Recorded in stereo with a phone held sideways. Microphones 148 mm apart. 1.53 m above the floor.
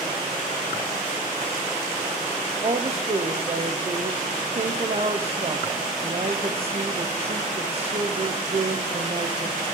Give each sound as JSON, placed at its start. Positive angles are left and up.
{"t": 2.6, "sound": "a woman speaking", "side_deg": -45, "distance_m": 0.8}